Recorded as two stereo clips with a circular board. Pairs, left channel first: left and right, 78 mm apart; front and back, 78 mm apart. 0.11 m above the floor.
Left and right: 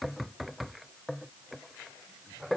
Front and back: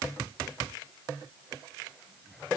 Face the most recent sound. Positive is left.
No sound to turn to.